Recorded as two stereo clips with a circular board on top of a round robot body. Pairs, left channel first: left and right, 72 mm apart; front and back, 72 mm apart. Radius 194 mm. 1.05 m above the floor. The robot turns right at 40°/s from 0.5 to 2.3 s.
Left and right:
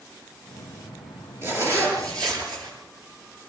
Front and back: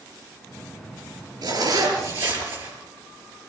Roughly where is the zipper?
Behind right.